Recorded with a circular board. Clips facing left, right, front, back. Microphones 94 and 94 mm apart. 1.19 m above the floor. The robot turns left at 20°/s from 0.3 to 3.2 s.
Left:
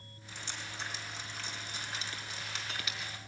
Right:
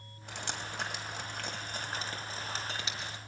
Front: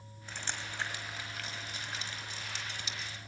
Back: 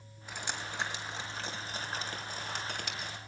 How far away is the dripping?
About 3 m.